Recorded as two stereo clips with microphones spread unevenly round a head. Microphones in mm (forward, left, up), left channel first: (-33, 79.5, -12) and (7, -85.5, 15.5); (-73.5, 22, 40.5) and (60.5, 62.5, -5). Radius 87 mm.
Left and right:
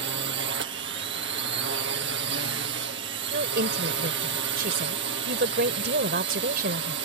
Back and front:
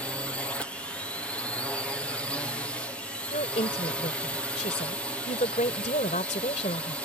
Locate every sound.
0.0 s a drone: 70° right
3.3 s a woman speaking: 110° right